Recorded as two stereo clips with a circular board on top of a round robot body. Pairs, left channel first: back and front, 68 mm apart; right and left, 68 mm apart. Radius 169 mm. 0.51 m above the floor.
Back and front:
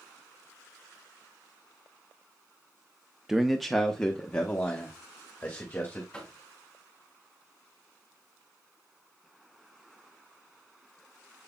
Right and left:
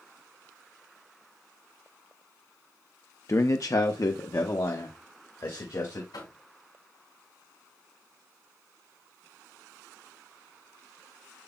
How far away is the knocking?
About 3.5 m.